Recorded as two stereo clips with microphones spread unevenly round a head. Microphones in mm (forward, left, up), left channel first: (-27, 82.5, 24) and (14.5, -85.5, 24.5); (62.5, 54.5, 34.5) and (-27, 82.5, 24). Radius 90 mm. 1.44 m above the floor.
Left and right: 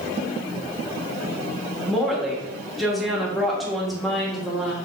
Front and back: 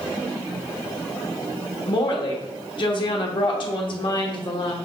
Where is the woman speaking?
15° left, 1.0 m.